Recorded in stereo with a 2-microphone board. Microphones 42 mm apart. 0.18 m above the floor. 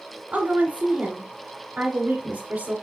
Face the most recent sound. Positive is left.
turn(degrees=-30)  # may be behind; listen again after turning